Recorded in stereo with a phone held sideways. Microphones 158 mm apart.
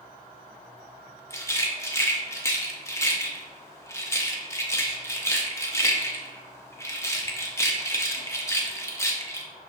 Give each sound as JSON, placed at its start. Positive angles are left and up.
{"t": 1.3, "sound": "a rattle", "side_deg": 20, "distance_m": 0.5}